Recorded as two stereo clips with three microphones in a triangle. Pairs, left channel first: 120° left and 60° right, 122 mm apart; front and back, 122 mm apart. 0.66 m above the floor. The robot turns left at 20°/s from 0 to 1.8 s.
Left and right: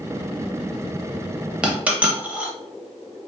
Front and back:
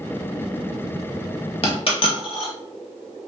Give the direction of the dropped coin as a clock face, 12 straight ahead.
11 o'clock.